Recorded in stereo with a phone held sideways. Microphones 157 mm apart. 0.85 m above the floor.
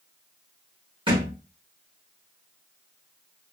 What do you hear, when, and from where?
1.1 s a thud: 35° right (ahead or behind), 1.5 m